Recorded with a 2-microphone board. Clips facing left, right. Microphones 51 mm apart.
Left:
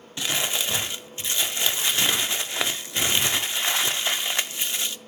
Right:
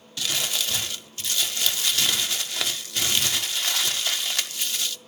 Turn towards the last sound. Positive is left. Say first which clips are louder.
# left 2 dB
turn(degrees=25)  # may be behind; listen again after turning